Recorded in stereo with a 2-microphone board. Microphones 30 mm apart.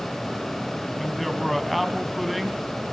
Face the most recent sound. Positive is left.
turn(degrees=0)  # may be behind; listen again after turning